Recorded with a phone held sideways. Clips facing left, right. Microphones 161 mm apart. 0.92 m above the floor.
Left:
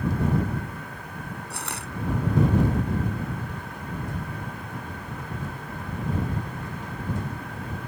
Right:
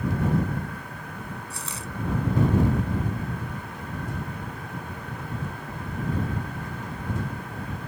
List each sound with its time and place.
1.5 s crushing: 75° left (ahead or behind)